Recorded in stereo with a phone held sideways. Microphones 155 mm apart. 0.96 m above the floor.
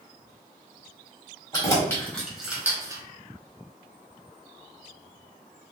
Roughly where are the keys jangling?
Left.